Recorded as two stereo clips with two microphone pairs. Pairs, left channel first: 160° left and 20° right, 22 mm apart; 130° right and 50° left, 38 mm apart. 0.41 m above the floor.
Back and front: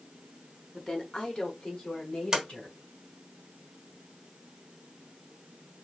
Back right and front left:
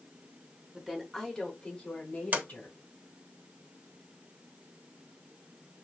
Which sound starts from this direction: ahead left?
A sliding door, at 2.3 s.